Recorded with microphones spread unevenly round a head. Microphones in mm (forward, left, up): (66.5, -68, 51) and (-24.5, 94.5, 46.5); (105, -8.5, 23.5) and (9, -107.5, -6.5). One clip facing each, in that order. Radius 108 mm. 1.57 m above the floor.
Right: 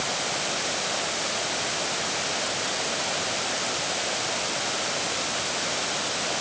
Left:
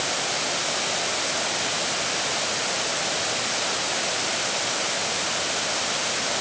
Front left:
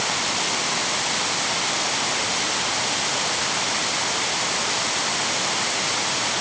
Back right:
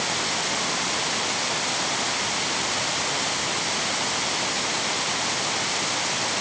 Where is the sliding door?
I don't hear a sliding door.